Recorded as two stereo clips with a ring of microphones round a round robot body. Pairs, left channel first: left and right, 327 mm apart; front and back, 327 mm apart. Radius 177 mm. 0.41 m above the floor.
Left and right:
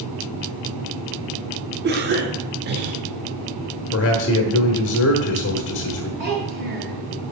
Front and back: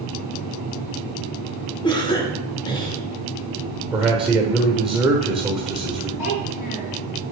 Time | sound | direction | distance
1.8 | a cough | 65° right | 1.1 m
3.9 | a man speaking | 90° left | 1.2 m
6.2 | a child speaking | 25° right | 4 m